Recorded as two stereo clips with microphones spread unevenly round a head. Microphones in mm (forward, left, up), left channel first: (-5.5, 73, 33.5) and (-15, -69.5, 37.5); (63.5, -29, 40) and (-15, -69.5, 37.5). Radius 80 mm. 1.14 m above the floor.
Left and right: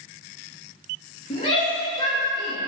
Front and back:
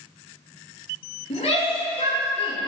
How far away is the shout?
About 2.5 m.